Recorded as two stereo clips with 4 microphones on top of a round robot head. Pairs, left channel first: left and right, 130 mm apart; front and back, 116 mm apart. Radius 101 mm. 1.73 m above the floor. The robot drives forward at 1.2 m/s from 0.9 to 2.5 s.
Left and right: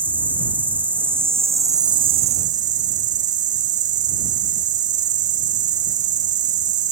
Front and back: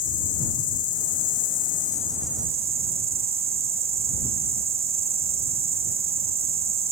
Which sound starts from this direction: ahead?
An insect, at 0.0 s.